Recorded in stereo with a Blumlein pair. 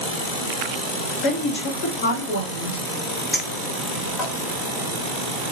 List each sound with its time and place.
1.2 s a woman speaking: 40° left, 2 m; by 2.8 s 70° left, 2 m
3.3 s a clink: 10° left, 2 m